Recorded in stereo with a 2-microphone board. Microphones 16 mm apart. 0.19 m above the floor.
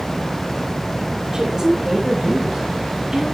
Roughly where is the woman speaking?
Right.